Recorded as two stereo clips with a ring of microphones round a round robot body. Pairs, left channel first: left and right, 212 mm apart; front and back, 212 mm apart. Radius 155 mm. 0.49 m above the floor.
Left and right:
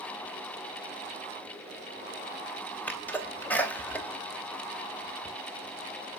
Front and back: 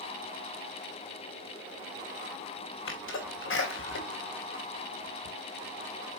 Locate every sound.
2.9 s a sneeze: 10° left, 3 m